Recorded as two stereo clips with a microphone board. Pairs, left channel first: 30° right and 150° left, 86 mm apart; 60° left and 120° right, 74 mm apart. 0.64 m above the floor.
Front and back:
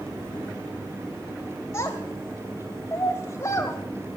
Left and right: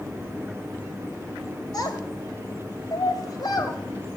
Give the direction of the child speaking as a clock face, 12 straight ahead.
11 o'clock.